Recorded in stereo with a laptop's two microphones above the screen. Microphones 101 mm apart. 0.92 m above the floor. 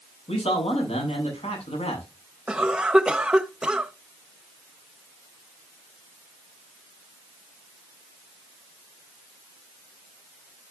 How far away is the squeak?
No squeak in this recording.